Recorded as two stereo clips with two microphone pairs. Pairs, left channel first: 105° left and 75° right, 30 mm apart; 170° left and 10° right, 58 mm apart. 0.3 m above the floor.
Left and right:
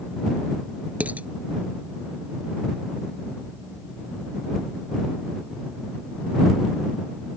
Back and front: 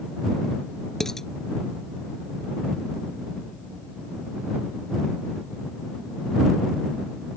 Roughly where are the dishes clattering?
Right.